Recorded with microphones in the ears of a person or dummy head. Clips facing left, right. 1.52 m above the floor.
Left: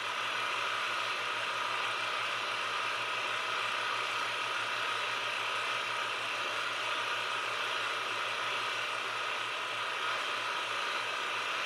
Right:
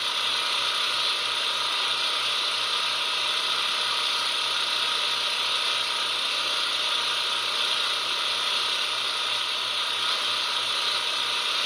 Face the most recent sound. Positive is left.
turn(degrees=-50)  # may be behind; listen again after turning